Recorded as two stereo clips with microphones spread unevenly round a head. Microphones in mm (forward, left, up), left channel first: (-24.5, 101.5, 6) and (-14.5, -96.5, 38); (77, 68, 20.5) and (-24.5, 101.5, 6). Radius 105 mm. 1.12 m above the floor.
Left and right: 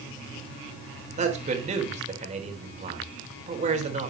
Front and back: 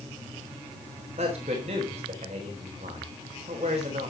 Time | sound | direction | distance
1.2 | a man speaking | 145° right | 4 m